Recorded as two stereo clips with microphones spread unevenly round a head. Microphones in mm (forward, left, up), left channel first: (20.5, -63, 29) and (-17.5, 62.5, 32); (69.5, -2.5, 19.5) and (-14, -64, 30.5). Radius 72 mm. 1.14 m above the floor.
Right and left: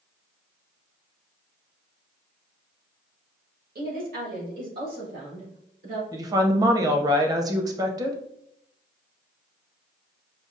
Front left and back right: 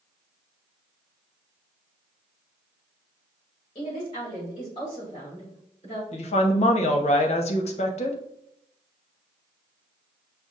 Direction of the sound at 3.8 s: 95° left.